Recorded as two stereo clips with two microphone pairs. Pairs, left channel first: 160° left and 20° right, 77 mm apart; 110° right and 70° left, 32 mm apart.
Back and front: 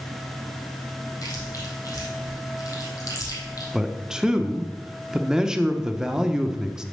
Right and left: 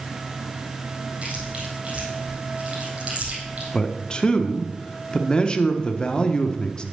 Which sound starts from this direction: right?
A man speaking, at 3.7 s.